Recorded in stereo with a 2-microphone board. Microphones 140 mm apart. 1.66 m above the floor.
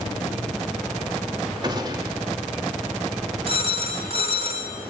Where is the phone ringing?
45° right (ahead or behind), 5 m.